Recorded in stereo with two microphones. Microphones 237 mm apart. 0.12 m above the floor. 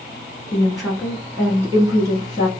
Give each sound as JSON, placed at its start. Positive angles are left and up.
{"t": 0.5, "sound": "a woman speaking", "side_deg": 5, "distance_m": 1.2}